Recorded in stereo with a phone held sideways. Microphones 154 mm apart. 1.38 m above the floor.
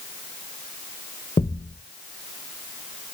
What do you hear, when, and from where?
1.4 s a thud: 45° left (ahead or behind), 0.9 m